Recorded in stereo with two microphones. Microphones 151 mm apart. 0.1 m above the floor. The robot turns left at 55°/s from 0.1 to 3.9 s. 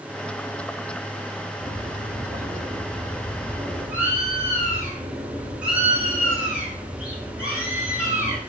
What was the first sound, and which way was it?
A bird, 45° right.